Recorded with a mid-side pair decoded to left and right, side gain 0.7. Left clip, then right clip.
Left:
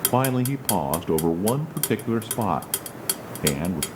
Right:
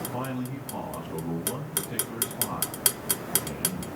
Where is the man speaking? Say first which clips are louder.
Left 10 dB; 65° left, 1.1 m.